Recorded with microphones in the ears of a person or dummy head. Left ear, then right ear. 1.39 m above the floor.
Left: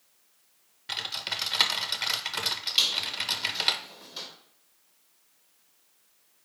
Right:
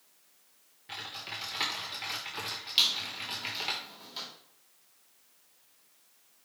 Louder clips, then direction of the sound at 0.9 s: Left 8 dB; 35° left (ahead or behind).